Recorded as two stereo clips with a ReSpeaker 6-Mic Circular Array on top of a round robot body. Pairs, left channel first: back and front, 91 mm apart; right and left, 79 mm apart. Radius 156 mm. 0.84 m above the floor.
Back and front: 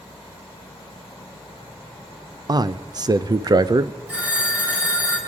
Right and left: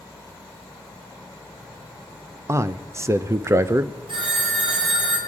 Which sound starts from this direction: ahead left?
A man speaking, at 2.5 s.